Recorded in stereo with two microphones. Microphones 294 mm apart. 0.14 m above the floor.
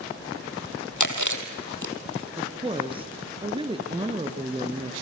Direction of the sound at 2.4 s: 15° right (ahead or behind).